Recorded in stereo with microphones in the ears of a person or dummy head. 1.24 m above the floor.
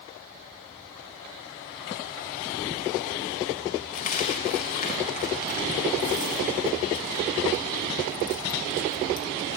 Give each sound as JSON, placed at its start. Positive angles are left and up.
{"t": 3.9, "sound": "a dropped coin", "side_deg": 45, "distance_m": 2.5}